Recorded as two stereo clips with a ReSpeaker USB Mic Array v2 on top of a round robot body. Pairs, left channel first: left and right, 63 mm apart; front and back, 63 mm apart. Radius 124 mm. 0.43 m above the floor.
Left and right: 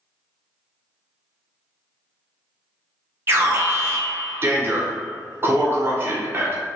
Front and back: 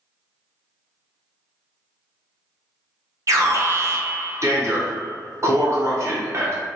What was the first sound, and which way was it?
An alarm, 145° right.